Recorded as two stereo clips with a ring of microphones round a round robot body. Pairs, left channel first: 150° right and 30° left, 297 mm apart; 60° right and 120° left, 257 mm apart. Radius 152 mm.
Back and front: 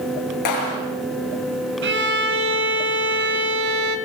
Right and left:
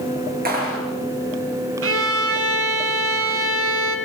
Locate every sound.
0.5 s a clap: 175° right, 7.5 m
1.8 s a violin: 85° left, 2.5 m